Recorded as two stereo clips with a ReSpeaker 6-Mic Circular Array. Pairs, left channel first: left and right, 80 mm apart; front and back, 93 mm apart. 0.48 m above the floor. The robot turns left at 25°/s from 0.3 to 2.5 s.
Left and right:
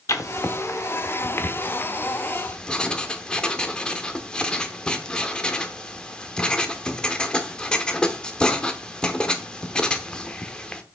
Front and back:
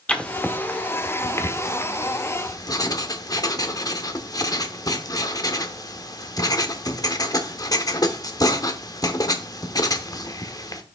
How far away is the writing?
About 0.8 m.